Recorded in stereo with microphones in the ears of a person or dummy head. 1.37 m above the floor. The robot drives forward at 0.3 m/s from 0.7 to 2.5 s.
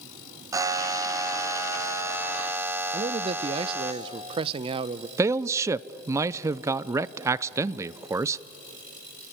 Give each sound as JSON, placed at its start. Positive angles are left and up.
{"t": 0.5, "sound": "a buzzer", "side_deg": -15, "distance_m": 0.8}
{"t": 2.9, "sound": "a man speaking", "side_deg": -30, "distance_m": 0.6}
{"t": 5.2, "sound": "a man speaking", "side_deg": -15, "distance_m": 0.5}